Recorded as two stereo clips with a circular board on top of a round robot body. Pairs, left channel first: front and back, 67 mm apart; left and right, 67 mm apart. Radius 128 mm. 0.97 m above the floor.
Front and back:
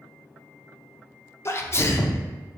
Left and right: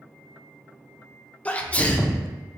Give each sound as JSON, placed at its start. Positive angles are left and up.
{"t": 1.4, "sound": "a sneeze", "azimuth_deg": 30, "distance_m": 0.5}